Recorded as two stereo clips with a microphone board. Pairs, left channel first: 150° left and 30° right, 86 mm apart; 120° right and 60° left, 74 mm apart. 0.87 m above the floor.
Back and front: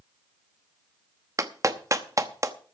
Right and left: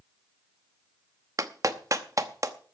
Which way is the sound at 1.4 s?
20° left.